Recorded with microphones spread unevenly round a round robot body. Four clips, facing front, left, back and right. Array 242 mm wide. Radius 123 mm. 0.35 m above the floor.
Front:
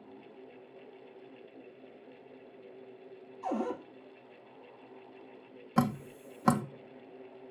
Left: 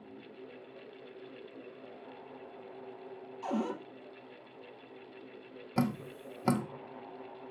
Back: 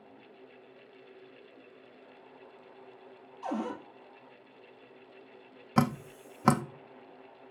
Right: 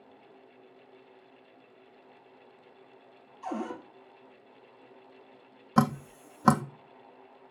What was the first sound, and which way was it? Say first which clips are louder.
A cupboard door: left 1 dB, front 1 dB; 125° left.